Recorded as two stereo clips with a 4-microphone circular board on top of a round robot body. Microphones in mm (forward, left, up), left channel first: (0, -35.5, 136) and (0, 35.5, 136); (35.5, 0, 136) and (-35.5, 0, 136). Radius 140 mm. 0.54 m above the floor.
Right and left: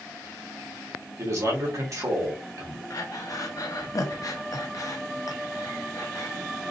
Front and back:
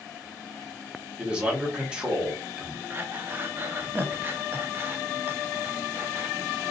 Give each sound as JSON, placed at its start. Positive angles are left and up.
{"t": 1.2, "sound": "a man speaking", "azimuth_deg": 105, "distance_m": 1.8}
{"t": 2.9, "sound": "breathing", "azimuth_deg": -120, "distance_m": 0.8}